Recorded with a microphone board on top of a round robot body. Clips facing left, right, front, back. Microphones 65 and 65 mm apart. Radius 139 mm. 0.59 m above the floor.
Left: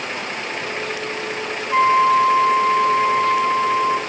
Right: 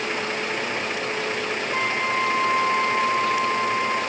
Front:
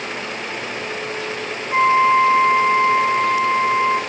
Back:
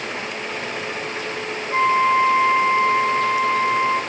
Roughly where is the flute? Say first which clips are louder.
Left 12 dB, front 3 dB; left.